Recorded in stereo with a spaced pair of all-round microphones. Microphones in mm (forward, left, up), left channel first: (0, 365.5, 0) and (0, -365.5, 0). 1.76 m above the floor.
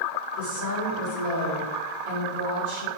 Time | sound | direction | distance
0.4 | a woman speaking | 80° left | 1.4 m